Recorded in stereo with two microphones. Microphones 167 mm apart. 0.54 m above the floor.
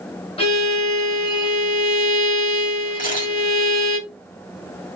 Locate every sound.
0.4 s a violin: 35° left (ahead or behind), 1.5 m
3.0 s a camera shutter: 55° left (ahead or behind), 1.9 m